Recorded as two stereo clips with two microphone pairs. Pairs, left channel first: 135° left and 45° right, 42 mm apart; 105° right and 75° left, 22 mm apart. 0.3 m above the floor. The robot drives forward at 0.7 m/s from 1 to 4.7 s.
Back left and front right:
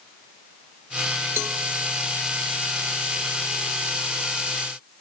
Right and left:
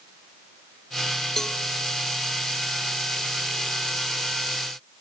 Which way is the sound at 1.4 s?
35° right.